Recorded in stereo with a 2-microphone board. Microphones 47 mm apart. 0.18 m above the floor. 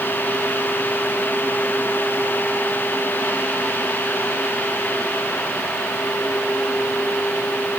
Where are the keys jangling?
No keys jangling in this recording.